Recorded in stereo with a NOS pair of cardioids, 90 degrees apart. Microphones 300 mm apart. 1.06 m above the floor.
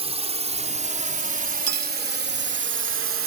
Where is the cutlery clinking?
60° right.